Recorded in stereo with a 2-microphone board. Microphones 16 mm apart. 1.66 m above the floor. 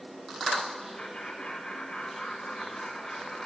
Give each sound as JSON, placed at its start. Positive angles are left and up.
{"t": 1.0, "sound": "laughter", "side_deg": 70, "distance_m": 7.0}